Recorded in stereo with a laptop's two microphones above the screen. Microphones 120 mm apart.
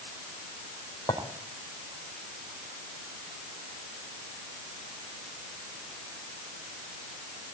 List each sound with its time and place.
1.1 s a clink: 30° left (ahead or behind), 3 m